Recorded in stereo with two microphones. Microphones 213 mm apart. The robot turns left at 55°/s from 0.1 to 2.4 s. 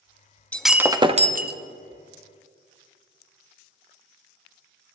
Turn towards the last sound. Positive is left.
turn(degrees=-95)